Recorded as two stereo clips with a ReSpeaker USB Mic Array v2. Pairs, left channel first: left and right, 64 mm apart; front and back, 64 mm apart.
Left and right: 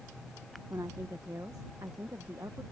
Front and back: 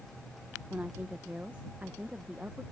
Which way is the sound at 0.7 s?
120° right.